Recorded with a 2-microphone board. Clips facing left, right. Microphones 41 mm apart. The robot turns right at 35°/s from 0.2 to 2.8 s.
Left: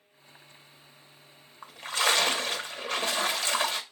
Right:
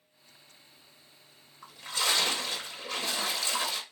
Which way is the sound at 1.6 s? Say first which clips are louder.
Left 4 dB; 55° left.